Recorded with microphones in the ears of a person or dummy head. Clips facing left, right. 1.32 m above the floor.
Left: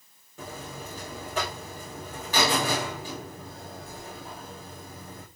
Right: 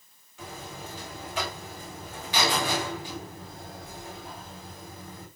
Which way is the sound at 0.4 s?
45° left (ahead or behind).